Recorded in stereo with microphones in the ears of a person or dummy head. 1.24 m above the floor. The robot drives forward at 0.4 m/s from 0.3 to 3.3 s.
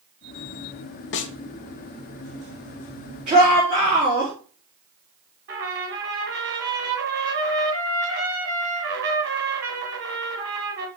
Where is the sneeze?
No sneeze in this recording.